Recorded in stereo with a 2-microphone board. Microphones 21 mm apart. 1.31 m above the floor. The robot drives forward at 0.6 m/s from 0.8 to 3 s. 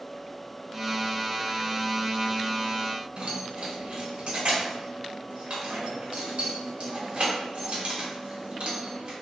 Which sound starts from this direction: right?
Keys jangling, at 3.2 s.